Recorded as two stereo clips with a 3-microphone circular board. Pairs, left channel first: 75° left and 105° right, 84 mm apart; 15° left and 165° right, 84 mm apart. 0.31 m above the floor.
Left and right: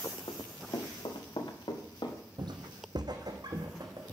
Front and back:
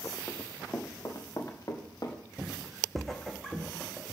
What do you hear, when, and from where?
0.3 s running footsteps: 85° left, 1.4 m; by 2.2 s 60° left, 2.5 m
2.4 s footsteps: 85° right, 0.8 m; by 4.1 s 65° right, 1.8 m